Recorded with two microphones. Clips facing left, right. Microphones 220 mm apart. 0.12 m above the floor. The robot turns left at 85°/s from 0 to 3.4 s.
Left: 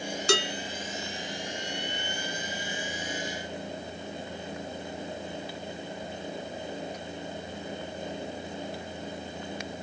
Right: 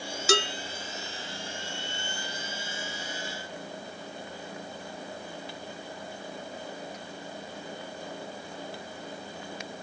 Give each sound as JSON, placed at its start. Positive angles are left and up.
{"t": 0.3, "sound": "dishes clattering", "side_deg": -5, "distance_m": 0.9}